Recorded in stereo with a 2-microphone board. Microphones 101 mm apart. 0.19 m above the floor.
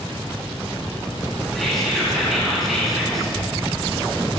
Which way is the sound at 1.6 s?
Centre (ahead or behind).